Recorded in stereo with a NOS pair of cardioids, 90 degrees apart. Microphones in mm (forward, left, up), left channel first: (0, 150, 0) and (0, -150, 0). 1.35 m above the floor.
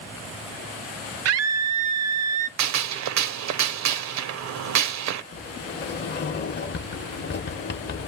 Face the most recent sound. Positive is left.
turn(degrees=35)